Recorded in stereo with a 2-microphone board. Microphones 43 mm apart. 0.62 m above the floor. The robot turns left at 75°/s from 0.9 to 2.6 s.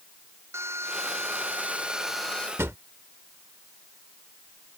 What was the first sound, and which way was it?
A drill, 85° right.